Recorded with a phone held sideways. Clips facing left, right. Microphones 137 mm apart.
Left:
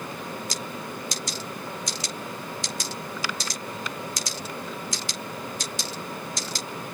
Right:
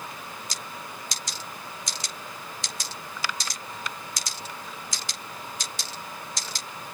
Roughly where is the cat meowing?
I don't hear a cat meowing.